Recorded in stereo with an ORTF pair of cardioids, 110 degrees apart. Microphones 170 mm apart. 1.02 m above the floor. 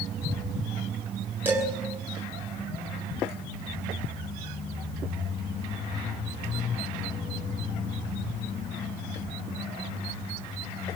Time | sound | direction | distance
1.4 | dishes clattering | 10° right | 9 m